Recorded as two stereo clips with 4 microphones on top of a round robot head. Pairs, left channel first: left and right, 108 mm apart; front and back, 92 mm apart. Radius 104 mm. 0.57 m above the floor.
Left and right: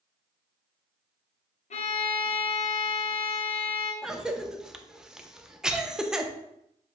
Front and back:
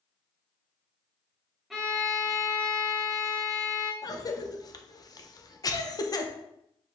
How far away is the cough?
About 0.8 m.